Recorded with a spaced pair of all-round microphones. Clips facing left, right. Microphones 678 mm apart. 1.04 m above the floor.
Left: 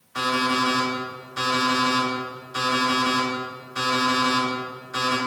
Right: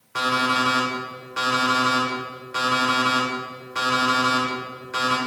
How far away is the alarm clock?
About 2 m.